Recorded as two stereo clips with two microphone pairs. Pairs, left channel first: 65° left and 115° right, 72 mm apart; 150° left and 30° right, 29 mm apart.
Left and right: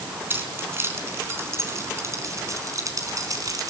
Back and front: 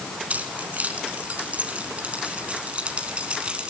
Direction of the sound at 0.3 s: 55° right.